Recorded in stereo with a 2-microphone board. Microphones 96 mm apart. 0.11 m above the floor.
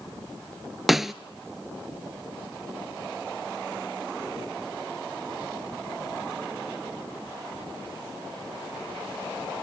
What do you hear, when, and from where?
0.9 s a snare drum: centre (ahead or behind), 0.6 m